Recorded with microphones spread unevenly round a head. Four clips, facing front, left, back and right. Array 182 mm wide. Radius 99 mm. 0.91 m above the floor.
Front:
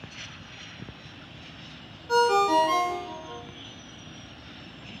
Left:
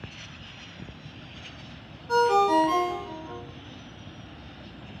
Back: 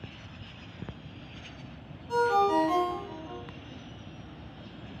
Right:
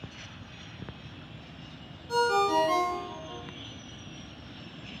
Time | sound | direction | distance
2.1 | a ringtone | 25° left | 1.5 m